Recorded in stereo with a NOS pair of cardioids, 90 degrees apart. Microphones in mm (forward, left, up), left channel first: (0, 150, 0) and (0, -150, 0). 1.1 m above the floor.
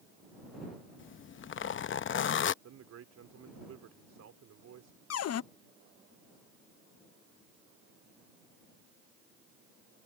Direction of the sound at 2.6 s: 60° right.